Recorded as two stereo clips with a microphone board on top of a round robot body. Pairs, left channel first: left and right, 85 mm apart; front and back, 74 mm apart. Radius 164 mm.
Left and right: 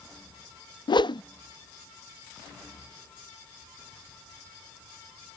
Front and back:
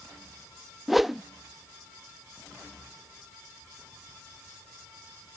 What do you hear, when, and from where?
0.9 s a whoosh: 95° left